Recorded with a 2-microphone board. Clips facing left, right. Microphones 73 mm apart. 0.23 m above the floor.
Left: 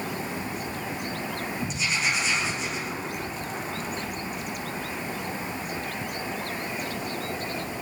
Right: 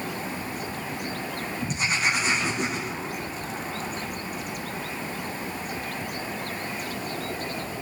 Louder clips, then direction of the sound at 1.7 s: Right 3 dB; 50° right (ahead or behind).